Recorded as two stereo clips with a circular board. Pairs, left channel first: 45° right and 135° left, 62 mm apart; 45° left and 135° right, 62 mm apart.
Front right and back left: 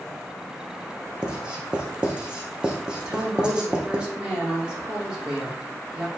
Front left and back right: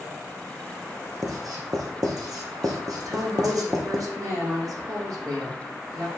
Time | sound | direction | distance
1.2 | writing | 150° right | 2.5 m
3.0 | a woman speaking | 150° right | 6 m